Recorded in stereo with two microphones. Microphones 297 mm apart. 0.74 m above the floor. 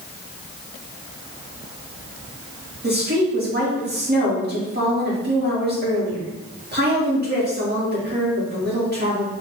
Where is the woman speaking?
35° right (ahead or behind), 1.9 m.